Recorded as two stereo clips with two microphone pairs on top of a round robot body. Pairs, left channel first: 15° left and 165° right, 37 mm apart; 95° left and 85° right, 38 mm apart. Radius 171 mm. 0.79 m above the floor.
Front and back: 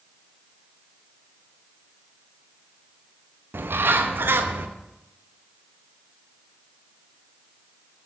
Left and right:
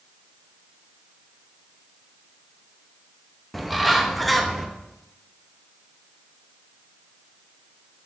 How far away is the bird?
About 0.6 m.